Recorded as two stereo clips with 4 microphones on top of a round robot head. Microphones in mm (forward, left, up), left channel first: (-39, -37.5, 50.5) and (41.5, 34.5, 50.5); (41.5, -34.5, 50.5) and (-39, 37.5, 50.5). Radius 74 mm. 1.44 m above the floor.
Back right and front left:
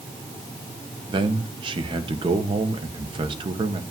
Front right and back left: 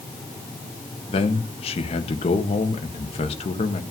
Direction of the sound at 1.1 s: 5° right.